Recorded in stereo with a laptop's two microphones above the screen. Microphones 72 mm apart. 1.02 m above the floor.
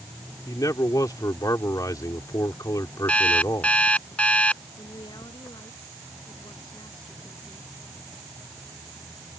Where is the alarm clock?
20° left (ahead or behind).